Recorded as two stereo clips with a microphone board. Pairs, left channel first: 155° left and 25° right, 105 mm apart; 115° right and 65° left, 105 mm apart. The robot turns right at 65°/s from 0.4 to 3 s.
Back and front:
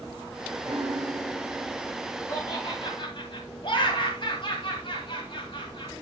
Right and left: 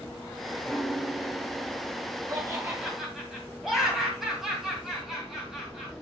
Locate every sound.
0.7 s a piano: 35° right, 1.3 m; by 2.8 s 105° left, 1.3 m
2.3 s laughter: 110° left, 2 m; by 5.9 s 155° left, 2 m